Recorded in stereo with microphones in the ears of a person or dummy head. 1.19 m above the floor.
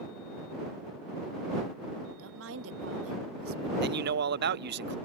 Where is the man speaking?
55° right (ahead or behind).